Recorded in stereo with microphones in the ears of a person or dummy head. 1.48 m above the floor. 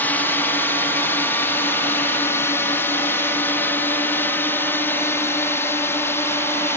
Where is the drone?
10° left (ahead or behind); by 6.8 s 15° left (ahead or behind).